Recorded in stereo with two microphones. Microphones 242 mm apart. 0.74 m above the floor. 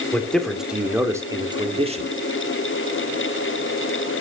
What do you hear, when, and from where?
0.1 s a man speaking: 5° left (ahead or behind), 2.5 m; by 2.1 s 30° right (ahead or behind), 2 m